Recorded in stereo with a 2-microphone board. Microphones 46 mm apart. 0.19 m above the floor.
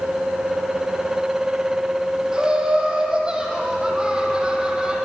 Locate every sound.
2.3 s laughter: 20° right (ahead or behind), 6.5 m